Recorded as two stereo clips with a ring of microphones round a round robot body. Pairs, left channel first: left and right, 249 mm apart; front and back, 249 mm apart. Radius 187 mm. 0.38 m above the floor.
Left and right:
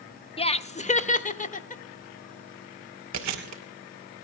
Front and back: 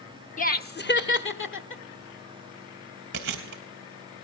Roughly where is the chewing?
Behind right.